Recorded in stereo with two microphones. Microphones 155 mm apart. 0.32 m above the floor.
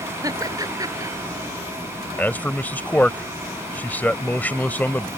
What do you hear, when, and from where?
0.2 s laughter: 25° right (ahead or behind)
2.2 s a man speaking: 10° left (ahead or behind)